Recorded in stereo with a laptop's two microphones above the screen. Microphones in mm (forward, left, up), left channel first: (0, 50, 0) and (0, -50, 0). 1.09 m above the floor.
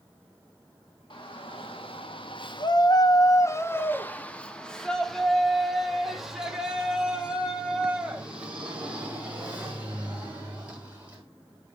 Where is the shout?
55° left (ahead or behind), 1.3 m; by 11.2 s 15° right (ahead or behind), 5 m.